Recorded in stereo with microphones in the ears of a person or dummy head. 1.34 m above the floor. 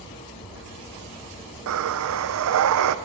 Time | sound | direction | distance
1.7 | breathing | 75° right (ahead or behind) | 0.7 m